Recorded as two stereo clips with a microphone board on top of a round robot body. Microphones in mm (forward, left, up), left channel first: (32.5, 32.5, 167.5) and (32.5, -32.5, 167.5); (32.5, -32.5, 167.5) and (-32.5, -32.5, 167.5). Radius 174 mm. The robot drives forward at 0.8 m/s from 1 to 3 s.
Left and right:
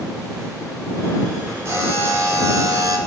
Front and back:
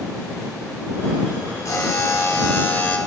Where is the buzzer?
40° right, 2 m; by 3.0 s 70° right, 1.6 m.